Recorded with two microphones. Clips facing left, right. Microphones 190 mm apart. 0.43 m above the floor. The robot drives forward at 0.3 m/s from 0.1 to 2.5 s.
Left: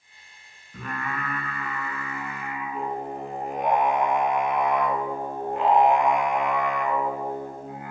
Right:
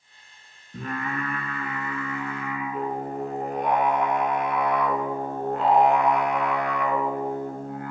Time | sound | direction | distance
0.7 | singing | 45° right (ahead or behind) | 1.4 m